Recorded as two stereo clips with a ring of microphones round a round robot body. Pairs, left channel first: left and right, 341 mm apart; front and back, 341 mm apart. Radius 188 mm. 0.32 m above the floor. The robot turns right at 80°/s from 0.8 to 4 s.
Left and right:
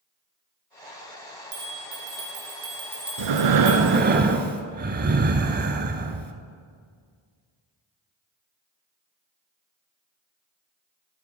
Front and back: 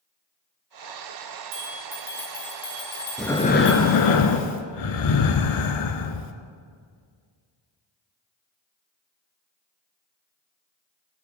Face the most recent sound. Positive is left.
turn(degrees=-25)